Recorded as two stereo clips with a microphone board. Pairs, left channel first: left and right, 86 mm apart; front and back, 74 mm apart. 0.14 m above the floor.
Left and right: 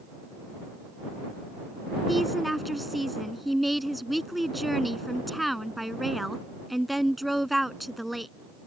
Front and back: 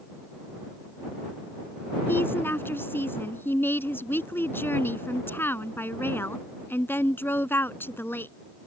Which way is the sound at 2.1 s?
Straight ahead.